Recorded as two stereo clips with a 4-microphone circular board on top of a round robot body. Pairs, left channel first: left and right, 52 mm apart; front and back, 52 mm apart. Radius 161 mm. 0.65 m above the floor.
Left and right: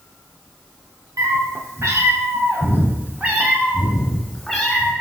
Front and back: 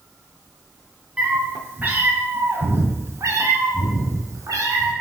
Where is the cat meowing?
110° right, 3 m; by 4.9 s 175° left, 3 m.